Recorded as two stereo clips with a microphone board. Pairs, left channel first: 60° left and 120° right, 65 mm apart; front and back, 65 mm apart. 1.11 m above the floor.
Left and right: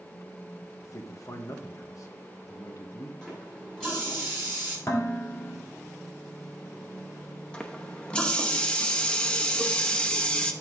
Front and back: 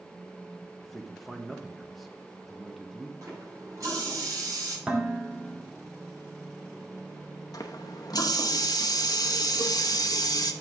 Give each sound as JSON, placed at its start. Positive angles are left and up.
{"t": 0.8, "sound": "a man speaking", "azimuth_deg": 90, "distance_m": 1.2}
{"t": 3.2, "sound": "a running tap", "azimuth_deg": 140, "distance_m": 5.5}
{"t": 4.9, "sound": "dishes clattering", "azimuth_deg": 105, "distance_m": 1.8}
{"t": 7.5, "sound": "a running tap", "azimuth_deg": -15, "distance_m": 0.7}